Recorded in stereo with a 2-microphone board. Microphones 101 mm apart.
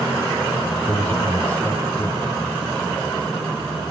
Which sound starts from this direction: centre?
A man speaking, at 0.9 s.